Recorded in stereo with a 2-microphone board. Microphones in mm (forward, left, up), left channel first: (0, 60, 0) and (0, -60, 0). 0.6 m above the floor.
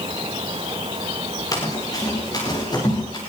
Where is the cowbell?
No cowbell in this recording.